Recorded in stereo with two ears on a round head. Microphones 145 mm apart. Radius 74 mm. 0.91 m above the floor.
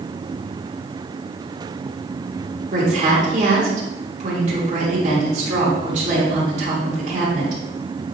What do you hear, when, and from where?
2.7 s a woman speaking: 45° right (ahead or behind), 3 m